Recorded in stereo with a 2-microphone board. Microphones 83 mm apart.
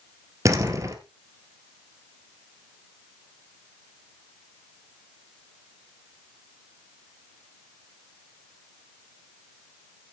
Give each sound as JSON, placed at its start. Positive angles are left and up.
{"t": 0.5, "sound": "a door slam", "side_deg": -40, "distance_m": 2.0}